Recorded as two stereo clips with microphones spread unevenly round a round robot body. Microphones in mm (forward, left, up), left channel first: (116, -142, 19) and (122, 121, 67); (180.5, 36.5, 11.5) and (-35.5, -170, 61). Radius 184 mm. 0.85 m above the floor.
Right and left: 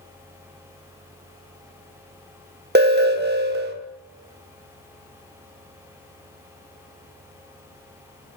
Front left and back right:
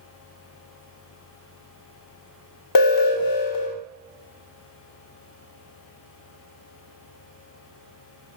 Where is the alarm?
35° left, 2 m.